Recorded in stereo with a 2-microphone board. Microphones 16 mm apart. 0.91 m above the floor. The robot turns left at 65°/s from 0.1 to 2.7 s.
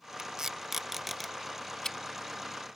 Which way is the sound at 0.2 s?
55° right (ahead or behind).